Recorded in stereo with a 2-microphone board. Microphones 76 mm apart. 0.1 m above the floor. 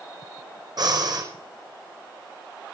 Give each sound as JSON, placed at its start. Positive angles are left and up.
{"t": 0.8, "sound": "breathing", "side_deg": -55, "distance_m": 5.0}